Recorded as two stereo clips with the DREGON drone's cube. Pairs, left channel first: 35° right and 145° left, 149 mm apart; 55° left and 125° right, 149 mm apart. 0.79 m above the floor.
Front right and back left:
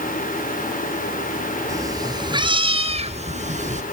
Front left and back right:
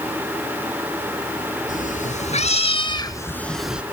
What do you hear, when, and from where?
1.7 s a cat meowing: 80° left, 1.7 m; by 3.8 s 155° left, 1.0 m